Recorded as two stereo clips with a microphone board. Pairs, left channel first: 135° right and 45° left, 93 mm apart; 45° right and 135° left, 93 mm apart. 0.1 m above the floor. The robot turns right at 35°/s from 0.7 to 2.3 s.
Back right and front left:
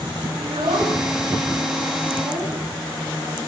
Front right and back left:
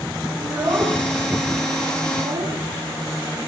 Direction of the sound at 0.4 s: 70° left.